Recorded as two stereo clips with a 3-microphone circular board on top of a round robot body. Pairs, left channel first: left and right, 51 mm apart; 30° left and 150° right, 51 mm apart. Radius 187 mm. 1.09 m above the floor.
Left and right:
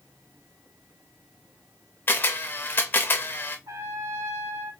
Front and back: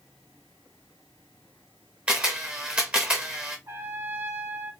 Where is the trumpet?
110° right, 1.6 m.